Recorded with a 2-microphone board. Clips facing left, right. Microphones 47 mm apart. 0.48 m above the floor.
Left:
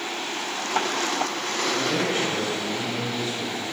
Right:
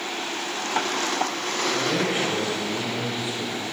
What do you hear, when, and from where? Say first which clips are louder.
1.7 s a man speaking: even; 20° right (ahead or behind), 1.7 m